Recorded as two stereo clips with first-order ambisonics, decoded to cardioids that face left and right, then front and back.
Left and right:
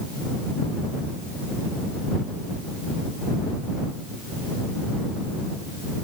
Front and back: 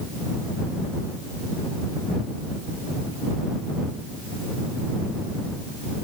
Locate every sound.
Only background noise.